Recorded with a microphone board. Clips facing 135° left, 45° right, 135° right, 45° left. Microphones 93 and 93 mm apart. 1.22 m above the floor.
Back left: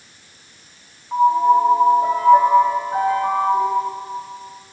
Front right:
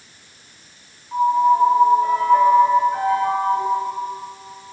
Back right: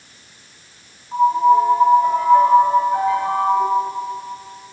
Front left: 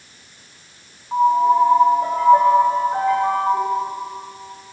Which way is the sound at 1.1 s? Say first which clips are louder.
Back left 2 dB, back right 1 dB; 75° left.